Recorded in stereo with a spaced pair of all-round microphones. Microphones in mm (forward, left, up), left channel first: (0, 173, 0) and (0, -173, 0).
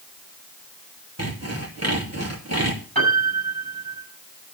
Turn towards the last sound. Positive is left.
turn(degrees=-80)